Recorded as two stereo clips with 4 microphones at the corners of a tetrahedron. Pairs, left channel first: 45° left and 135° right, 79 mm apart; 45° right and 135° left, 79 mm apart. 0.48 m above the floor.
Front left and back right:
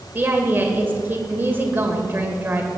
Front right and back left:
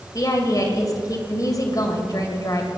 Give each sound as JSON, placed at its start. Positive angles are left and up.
{"t": 0.1, "sound": "a woman speaking", "azimuth_deg": -75, "distance_m": 2.5}